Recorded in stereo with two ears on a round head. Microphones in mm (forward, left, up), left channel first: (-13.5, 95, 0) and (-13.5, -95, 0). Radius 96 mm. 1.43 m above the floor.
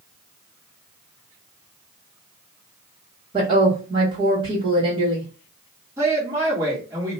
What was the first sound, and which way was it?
A woman speaking, 30° right (ahead or behind).